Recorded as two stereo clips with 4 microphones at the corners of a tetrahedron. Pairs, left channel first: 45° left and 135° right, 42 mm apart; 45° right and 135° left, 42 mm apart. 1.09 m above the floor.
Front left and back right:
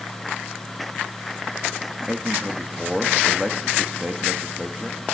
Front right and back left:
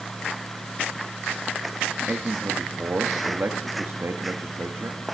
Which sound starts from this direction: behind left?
A man speaking, at 2.1 s.